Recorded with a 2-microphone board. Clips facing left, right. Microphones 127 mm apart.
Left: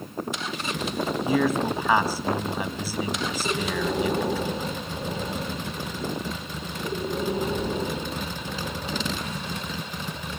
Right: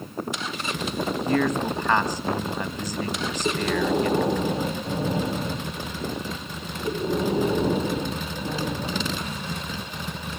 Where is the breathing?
35° right (ahead or behind), 6 m.